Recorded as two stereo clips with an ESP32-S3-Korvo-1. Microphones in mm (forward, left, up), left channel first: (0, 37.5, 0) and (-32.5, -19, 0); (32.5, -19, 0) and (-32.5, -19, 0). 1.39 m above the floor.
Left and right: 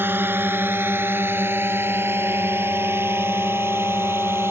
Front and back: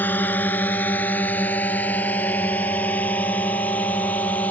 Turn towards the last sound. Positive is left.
turn(degrees=-65)